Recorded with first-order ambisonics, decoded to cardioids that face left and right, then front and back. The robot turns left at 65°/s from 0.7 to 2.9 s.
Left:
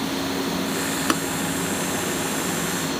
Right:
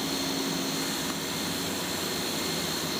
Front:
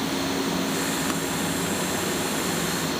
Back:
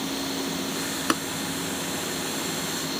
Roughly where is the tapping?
Behind left.